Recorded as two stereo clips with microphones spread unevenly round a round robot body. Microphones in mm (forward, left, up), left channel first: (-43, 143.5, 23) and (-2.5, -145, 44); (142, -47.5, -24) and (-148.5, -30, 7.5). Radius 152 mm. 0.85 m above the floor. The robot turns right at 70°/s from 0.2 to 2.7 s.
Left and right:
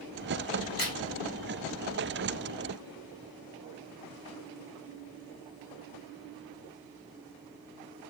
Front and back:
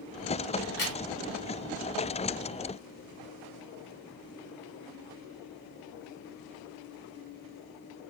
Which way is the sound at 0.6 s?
35° right.